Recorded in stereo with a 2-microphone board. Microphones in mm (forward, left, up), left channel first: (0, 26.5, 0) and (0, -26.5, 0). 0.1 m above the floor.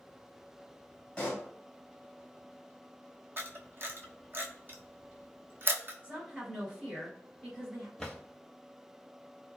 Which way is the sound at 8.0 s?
10° left (ahead or behind).